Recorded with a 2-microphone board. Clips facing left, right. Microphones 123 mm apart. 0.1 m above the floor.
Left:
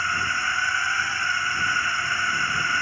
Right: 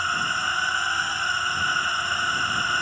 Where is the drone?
15° right (ahead or behind).